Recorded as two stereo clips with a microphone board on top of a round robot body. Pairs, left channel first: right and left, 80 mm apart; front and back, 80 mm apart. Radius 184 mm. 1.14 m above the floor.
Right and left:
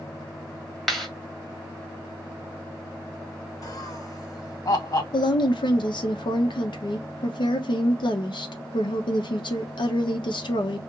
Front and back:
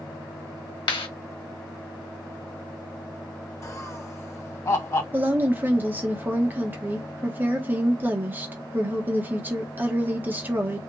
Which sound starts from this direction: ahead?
A clap, at 0.9 s.